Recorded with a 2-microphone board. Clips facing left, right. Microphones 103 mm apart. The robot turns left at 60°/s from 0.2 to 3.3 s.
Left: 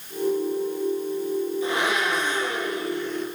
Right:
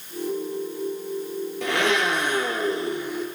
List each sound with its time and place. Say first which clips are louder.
1.6 s a blender: right 1 dB; 80° right, 6.5 m; by 3.2 s straight behind, 6.5 m